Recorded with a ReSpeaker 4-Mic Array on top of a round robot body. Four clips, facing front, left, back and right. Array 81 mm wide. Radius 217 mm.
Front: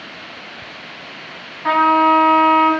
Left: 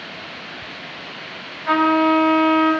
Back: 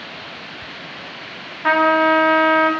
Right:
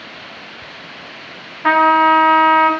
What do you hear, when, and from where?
1.6 s a trumpet: 105° right, 2 m